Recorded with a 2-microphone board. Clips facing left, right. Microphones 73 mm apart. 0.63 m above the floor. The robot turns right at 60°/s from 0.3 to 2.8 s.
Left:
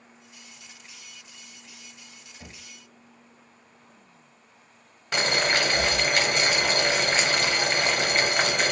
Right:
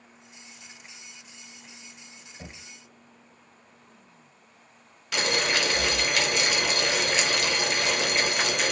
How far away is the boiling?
About 0.8 m.